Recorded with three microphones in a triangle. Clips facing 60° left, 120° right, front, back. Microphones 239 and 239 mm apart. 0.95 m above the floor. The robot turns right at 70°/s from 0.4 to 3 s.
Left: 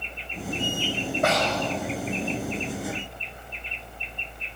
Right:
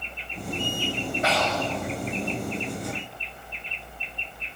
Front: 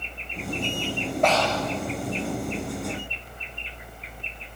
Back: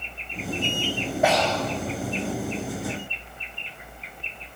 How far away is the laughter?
No laughter in this recording.